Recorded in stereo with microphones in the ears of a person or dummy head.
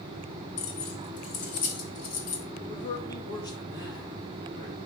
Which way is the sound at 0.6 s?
45° left (ahead or behind).